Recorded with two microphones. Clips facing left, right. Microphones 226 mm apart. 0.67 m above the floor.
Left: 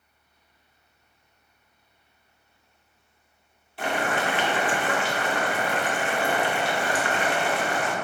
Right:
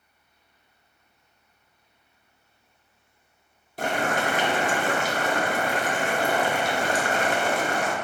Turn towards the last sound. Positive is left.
turn(degrees=-45)  # may be behind; listen again after turning